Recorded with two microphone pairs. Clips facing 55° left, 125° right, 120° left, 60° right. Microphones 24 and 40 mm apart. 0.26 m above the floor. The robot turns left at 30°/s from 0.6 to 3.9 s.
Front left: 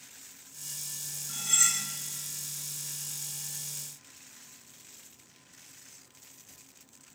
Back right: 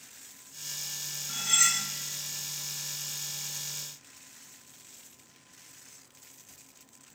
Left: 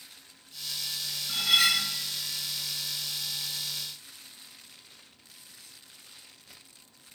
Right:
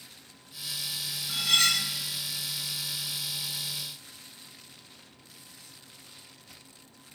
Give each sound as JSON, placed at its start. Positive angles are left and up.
{"t": 1.3, "sound": "cutlery clinking", "azimuth_deg": -165, "distance_m": 0.6}